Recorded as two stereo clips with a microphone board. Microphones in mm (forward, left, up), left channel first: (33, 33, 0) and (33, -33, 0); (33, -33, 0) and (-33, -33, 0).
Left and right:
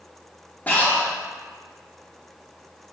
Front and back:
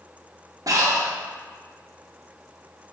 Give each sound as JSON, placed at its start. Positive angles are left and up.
{"t": 0.7, "sound": "breathing", "azimuth_deg": 155, "distance_m": 1.6}